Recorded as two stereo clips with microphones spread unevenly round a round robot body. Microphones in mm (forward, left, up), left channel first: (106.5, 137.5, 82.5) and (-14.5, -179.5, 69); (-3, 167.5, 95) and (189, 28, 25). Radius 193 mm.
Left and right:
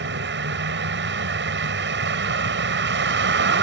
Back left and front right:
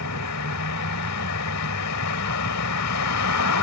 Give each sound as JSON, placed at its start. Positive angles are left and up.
{"t": 0.0, "sound": "a vehicle", "azimuth_deg": -170}